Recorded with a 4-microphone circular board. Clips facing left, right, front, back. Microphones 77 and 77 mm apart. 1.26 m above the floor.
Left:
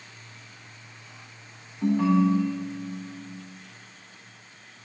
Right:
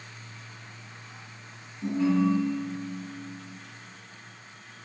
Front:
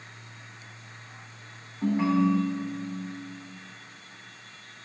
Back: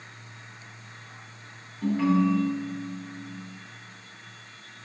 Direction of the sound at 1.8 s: 65° left.